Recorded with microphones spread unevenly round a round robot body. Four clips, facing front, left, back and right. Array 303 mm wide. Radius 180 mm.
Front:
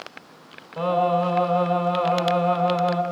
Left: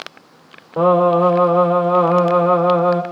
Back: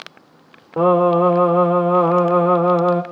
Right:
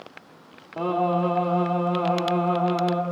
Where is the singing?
155° left, 2.5 m.